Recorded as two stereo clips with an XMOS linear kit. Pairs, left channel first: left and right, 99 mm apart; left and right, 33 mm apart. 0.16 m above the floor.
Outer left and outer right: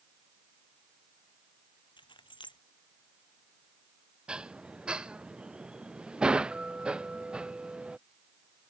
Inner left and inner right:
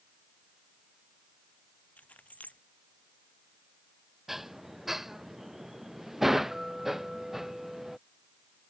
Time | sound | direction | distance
2.0 | keys jangling | 50° left (ahead or behind) | ?
4.3 | dishes clattering | 10° right (ahead or behind) | ?